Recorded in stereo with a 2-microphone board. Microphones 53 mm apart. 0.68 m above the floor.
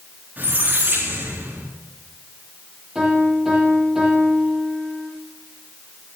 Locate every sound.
0.4 s a squeak: 35° right (ahead or behind), 8 m
3.0 s a piano: 10° right (ahead or behind), 9.5 m